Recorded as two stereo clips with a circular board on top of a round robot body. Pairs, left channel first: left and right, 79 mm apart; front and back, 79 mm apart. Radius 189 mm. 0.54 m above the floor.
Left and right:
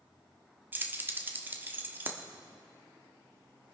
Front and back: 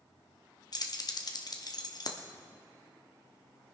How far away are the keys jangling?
About 1.3 m.